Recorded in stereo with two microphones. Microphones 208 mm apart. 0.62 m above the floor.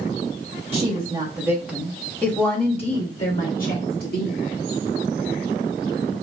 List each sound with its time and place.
0.7 s a woman speaking: 30° right (ahead or behind), 1.2 m; by 4.4 s 55° left (ahead or behind), 1.7 m